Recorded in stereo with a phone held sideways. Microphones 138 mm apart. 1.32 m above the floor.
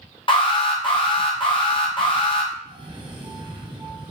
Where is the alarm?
35° left (ahead or behind), 0.7 m.